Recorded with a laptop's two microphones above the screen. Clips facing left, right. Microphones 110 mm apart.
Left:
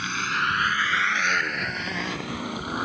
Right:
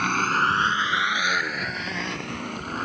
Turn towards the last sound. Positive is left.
turn(degrees=5)  # may be behind; listen again after turning